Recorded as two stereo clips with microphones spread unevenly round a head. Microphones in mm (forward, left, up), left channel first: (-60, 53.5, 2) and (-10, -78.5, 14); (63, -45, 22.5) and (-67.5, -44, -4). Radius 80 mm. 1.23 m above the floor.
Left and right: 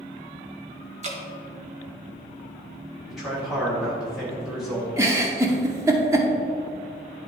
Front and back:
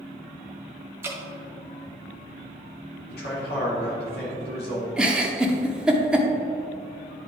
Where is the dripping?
110° right, 1.6 m.